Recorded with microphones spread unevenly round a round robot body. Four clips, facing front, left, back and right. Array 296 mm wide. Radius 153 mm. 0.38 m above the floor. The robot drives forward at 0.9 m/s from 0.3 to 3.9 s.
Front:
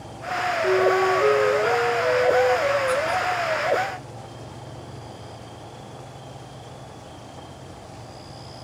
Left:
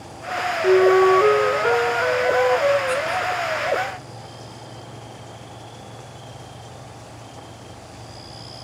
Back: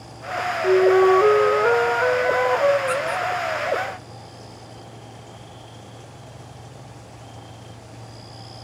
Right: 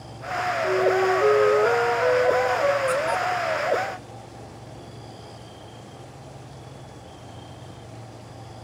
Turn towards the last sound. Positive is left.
turn(degrees=-140)